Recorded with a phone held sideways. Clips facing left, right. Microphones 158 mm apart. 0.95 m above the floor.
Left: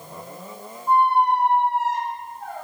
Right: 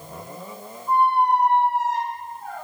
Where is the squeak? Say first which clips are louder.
Left 1 dB; 70° left (ahead or behind), 0.6 m.